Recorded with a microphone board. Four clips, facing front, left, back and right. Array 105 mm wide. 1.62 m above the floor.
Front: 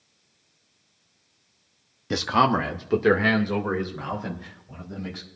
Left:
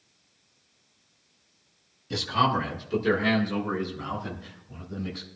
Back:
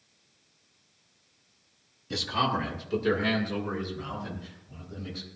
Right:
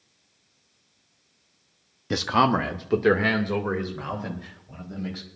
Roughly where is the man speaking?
Ahead right.